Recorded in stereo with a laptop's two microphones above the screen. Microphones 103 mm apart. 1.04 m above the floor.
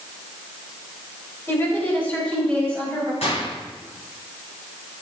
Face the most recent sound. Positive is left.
turn(degrees=75)  # may be behind; listen again after turning